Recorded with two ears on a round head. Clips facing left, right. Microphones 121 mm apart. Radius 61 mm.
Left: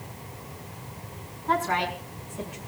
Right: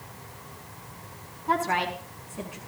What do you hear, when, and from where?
1.5 s a woman speaking: 10° right (ahead or behind), 6.5 m